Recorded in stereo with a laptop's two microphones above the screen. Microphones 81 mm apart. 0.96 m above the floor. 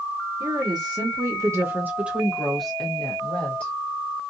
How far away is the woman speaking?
About 1.0 m.